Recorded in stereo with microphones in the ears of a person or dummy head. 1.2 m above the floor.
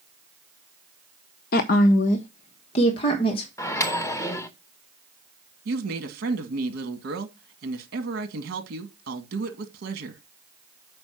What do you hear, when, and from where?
1.5 s a woman speaking: 50° left (ahead or behind), 0.6 m; by 3.5 s 30° left (ahead or behind), 1.7 m
3.6 s a microwave: 20° left (ahead or behind), 0.7 m
5.7 s a woman speaking: 60° right (ahead or behind), 2 m